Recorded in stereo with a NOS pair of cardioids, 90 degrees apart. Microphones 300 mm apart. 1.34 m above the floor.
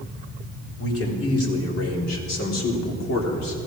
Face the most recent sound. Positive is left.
turn(degrees=65)